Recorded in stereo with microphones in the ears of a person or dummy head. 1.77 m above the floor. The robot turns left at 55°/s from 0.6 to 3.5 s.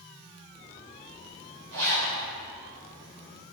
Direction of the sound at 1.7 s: 75° right (ahead or behind).